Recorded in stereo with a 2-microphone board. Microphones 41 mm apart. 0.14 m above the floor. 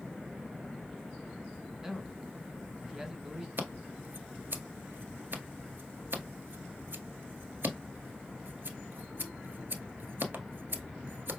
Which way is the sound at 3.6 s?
65° right (ahead or behind).